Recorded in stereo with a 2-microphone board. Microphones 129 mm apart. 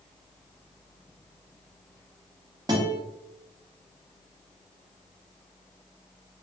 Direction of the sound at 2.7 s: 30° right (ahead or behind).